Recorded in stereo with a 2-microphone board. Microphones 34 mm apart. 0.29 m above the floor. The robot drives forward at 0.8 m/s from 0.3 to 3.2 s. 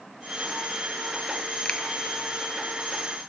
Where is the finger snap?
30° left (ahead or behind), 1.8 m.